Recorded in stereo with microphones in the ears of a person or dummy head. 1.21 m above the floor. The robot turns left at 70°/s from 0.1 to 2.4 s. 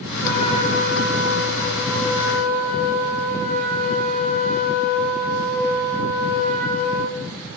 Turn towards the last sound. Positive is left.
turn(degrees=15)